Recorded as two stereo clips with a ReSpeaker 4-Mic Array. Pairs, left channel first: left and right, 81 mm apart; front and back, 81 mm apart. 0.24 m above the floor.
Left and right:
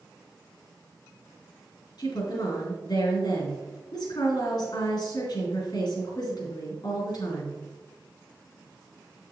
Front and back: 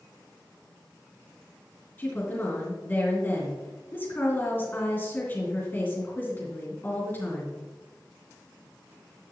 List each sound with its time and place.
2.0 s a woman speaking: 65° left, 3.5 m